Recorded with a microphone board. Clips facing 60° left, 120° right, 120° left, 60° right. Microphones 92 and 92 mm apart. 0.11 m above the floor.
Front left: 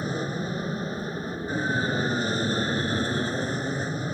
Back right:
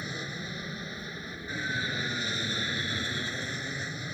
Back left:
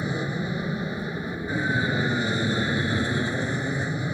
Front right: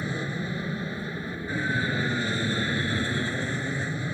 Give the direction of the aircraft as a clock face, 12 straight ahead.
10 o'clock.